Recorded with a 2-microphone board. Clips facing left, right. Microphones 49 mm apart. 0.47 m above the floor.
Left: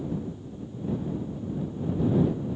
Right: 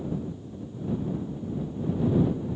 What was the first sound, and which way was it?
Only background noise.